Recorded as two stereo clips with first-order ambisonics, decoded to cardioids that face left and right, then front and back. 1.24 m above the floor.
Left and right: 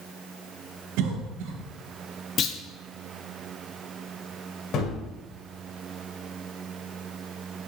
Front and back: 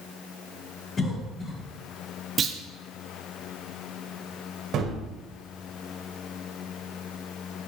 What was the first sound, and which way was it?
A cough, 70° right.